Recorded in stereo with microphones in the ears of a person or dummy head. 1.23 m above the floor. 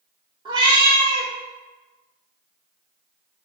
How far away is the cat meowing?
About 0.8 m.